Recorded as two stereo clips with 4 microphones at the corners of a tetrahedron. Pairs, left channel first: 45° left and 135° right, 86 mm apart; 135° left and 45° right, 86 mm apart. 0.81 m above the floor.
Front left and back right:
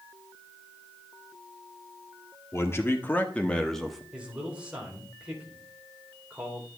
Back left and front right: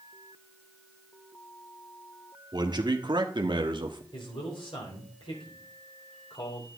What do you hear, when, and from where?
2.5 s a man speaking: 15° right, 1.8 m; by 4.0 s 50° right, 1.2 m
4.1 s a man speaking: 150° left, 3.5 m